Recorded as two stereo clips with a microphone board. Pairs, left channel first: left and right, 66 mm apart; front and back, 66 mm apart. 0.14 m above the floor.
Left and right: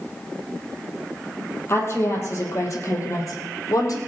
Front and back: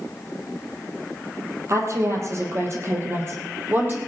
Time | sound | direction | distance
1.7 | a woman speaking | 140° left | 4 m